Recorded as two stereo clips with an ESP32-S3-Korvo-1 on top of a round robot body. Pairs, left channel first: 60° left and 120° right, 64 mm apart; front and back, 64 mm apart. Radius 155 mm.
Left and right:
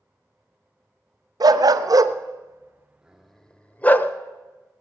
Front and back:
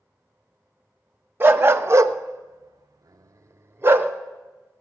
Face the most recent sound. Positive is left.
turn(degrees=120)